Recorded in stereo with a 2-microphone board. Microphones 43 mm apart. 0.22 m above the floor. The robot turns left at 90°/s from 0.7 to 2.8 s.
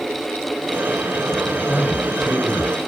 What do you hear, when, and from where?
1.7 s a man speaking: 175° left, 2.5 m; by 2.7 s 80° left, 2.5 m